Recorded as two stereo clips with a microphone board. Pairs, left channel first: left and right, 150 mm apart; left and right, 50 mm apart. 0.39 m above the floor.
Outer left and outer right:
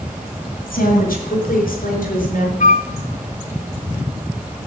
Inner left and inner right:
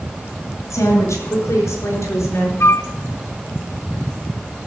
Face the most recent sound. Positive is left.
turn(degrees=60)  # may be behind; listen again after turning